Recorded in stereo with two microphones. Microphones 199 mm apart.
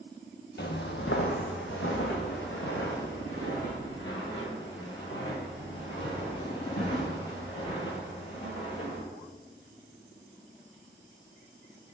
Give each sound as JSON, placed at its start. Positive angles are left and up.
{"t": 0.6, "sound": "footsteps", "side_deg": 65, "distance_m": 0.6}